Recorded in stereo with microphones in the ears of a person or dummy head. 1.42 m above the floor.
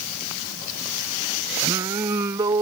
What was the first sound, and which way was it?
Singing, 25° right (ahead or behind).